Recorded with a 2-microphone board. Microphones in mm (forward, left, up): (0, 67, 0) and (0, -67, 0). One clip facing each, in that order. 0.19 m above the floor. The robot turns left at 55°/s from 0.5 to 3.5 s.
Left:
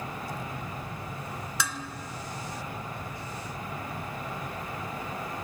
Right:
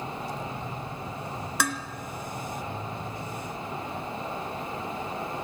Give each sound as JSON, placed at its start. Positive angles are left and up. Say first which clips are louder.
{"t": 1.6, "sound": "dishes clattering", "louder": "right 6 dB", "side_deg": -60, "distance_m": 1.6}